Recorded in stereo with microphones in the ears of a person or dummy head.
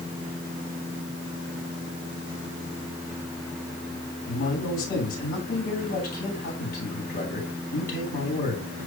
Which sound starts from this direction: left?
A man speaking, at 4.3 s.